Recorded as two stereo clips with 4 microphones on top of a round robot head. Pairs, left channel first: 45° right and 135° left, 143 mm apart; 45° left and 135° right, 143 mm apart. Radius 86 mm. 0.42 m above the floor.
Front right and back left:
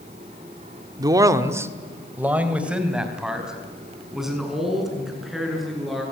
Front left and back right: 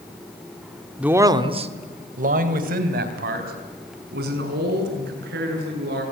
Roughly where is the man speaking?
Behind left.